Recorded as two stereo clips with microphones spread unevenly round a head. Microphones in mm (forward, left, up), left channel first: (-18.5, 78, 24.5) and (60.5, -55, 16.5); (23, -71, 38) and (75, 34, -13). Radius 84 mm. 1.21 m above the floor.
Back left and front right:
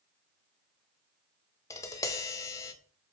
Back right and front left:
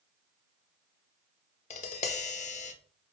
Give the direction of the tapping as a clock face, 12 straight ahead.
6 o'clock.